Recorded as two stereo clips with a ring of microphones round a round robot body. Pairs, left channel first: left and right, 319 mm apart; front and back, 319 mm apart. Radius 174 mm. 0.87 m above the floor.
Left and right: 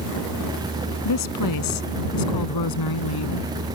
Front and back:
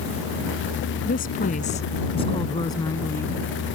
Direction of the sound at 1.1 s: 65° left.